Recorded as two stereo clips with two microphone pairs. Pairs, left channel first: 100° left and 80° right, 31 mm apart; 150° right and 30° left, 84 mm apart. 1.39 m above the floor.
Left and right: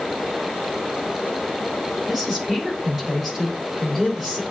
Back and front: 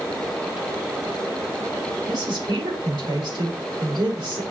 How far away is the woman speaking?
About 5 m.